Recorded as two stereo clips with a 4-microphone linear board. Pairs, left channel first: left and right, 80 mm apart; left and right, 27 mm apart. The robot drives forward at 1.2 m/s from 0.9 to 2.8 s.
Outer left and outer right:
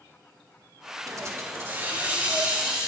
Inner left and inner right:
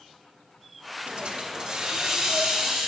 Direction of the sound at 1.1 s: 45° right (ahead or behind).